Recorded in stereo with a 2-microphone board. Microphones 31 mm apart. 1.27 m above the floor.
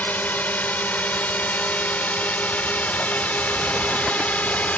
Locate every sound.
0.0 s a drone: 60° left (ahead or behind); by 4.8 s 50° left (ahead or behind)